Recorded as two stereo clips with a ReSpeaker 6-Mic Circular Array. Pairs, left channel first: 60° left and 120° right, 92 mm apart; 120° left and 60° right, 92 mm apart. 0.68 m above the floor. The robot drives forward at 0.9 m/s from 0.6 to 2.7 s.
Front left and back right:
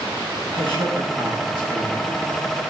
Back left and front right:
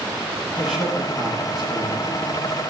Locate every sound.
0.6 s a man speaking: 140° right, 9 m; by 2.6 s 150° right, 10.5 m